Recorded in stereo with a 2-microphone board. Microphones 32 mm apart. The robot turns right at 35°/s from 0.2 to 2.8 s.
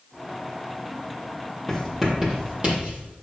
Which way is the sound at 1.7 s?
5° right (ahead or behind).